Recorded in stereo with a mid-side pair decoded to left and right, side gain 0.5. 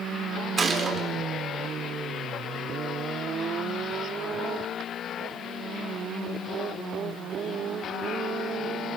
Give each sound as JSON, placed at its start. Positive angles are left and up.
{"t": 0.6, "sound": "a gunshot", "azimuth_deg": -35, "distance_m": 4.0}